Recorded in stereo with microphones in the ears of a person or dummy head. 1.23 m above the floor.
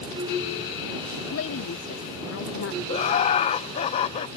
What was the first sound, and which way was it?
A woman speaking, 70° left (ahead or behind).